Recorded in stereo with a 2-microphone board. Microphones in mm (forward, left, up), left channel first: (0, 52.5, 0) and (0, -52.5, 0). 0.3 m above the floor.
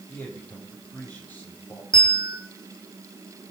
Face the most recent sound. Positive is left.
turn(degrees=10)  # may be behind; listen again after turning